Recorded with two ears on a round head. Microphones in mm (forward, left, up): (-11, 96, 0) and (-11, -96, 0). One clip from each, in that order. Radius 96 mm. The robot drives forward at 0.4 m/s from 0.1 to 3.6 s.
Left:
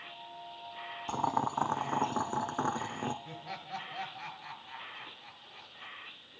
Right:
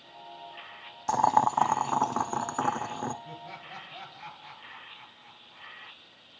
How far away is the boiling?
About 0.5 m.